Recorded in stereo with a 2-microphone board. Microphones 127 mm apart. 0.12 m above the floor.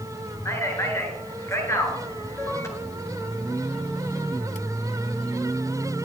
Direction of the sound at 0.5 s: 20° left (ahead or behind).